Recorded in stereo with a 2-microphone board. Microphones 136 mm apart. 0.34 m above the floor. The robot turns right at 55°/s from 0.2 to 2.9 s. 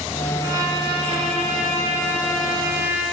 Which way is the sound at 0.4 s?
155° right.